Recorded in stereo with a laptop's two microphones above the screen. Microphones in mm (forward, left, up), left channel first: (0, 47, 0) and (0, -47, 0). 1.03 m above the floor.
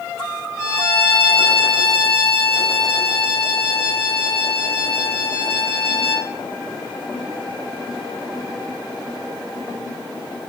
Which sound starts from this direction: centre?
A violin, at 0.6 s.